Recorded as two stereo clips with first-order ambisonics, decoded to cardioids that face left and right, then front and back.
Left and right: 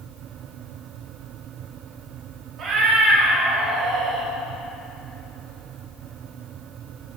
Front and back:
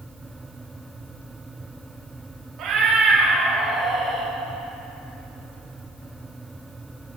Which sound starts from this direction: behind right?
A cat meowing, at 2.6 s.